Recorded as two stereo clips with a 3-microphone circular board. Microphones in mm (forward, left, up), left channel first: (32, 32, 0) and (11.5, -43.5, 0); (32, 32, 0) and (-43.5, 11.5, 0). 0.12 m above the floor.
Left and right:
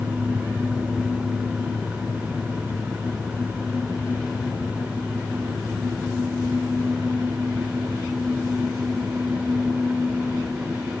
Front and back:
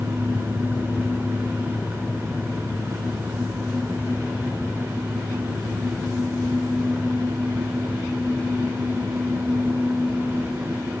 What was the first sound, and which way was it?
Only background noise.